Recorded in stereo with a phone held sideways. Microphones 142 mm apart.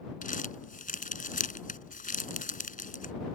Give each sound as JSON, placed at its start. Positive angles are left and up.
{"t": 0.2, "sound": "crumpling", "side_deg": 75}